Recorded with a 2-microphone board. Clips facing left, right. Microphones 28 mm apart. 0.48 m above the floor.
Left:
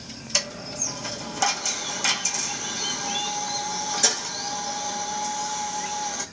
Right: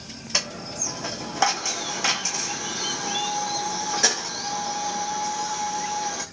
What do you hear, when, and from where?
0.3 s a dropped coin: 35° right (ahead or behind), 1.1 m